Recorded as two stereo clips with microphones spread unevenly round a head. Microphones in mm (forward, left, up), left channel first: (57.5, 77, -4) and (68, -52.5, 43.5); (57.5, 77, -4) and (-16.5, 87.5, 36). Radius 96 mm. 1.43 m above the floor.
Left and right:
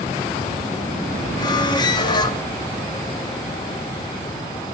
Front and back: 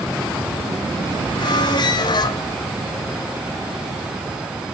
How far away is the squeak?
About 0.6 m.